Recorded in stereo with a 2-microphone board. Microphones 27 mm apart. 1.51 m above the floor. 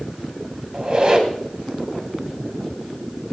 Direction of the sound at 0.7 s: 45° right (ahead or behind).